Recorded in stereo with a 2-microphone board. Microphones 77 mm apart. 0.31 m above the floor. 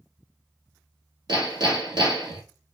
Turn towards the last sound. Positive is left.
turn(degrees=-65)  # may be behind; listen again after turning